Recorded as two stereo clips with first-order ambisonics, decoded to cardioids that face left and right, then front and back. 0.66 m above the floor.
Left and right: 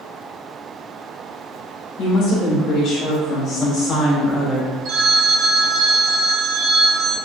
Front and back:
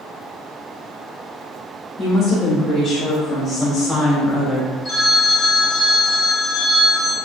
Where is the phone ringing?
70° right, 1.0 m.